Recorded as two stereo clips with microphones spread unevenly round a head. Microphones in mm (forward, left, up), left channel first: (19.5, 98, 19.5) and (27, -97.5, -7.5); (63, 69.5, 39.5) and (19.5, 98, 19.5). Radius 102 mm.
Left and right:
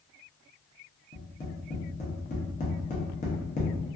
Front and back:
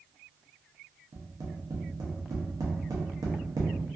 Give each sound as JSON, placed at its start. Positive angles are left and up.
{"t": 1.1, "sound": "tapping", "azimuth_deg": 140, "distance_m": 0.6}